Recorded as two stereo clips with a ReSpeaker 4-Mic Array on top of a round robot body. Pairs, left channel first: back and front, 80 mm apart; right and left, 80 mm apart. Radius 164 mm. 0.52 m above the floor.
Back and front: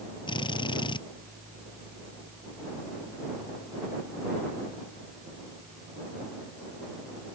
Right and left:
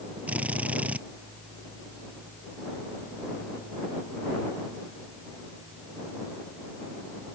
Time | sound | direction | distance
0.3 | a drill | 165° left | ?